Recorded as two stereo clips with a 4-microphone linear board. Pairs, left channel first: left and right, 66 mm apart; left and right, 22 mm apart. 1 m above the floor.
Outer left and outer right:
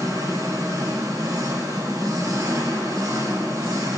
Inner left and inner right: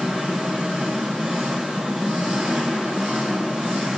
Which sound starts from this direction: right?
An engine running, at 0.0 s.